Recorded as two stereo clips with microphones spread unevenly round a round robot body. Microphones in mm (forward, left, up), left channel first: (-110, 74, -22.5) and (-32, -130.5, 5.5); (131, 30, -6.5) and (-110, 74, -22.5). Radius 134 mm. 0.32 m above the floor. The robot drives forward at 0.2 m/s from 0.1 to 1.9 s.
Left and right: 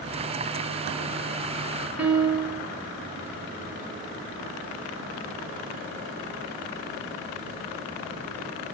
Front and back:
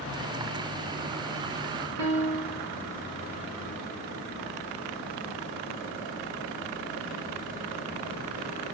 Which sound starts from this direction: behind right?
A piano, at 2.0 s.